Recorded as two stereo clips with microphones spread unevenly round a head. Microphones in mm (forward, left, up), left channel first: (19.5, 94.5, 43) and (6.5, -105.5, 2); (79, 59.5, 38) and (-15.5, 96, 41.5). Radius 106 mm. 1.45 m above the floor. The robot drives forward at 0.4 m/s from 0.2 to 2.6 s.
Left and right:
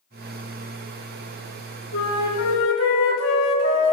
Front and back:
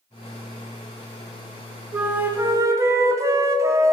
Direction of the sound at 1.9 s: 85° left.